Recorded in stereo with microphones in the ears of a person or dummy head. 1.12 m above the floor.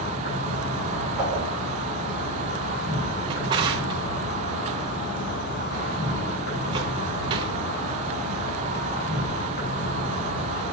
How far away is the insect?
About 3.5 m.